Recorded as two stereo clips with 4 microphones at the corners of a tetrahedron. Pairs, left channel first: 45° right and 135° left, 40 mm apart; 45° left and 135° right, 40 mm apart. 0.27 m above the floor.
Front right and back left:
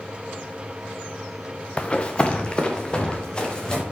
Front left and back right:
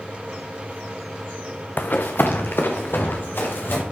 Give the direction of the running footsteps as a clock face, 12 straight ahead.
12 o'clock.